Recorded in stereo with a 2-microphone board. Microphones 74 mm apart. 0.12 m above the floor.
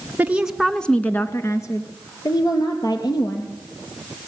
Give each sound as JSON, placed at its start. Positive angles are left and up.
{"t": 0.2, "sound": "a woman speaking", "side_deg": -25, "distance_m": 1.1}